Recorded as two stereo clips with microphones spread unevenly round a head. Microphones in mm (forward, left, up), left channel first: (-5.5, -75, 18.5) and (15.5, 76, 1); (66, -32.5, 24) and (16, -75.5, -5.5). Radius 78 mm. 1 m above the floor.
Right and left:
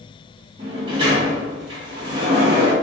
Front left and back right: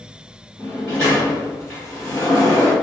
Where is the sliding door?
135° left, 2 m.